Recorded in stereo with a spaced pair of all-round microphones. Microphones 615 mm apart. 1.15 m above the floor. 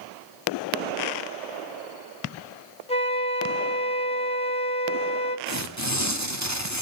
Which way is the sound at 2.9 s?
10° left (ahead or behind).